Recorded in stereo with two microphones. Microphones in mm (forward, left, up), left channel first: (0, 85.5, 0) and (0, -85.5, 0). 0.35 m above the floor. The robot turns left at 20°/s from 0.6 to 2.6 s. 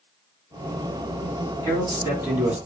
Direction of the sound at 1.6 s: 25° right (ahead or behind).